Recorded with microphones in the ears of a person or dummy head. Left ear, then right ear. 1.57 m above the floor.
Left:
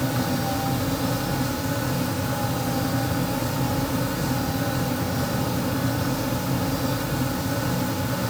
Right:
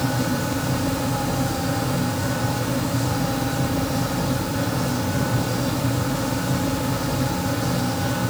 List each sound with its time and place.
Only background noise.